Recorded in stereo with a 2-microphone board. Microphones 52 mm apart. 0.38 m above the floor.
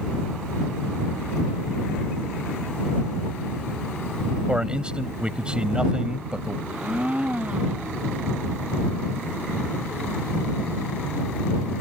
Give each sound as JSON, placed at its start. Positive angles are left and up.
{"t": 4.5, "sound": "a man speaking", "side_deg": -20}
{"t": 6.7, "sound": "a blender", "side_deg": -25}